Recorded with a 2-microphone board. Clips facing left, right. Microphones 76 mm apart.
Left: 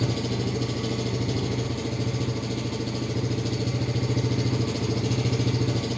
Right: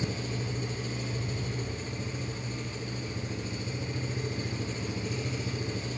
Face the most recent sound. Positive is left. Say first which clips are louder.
# left 7 dB
turn(degrees=75)  # may be behind; listen again after turning